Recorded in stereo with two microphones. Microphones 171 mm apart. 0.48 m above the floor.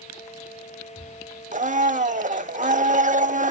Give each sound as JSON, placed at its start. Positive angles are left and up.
{"t": 1.5, "sound": "a blender", "side_deg": -50, "distance_m": 0.7}